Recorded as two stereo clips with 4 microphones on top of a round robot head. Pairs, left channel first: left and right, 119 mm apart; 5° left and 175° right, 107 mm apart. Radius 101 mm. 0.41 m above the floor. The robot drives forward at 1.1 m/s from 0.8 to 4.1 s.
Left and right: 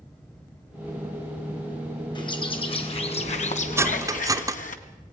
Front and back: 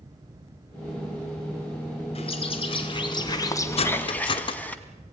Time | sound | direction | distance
2.1 | a bird | 40° left | 3 m
3.8 | cutlery clinking | 20° right | 1.3 m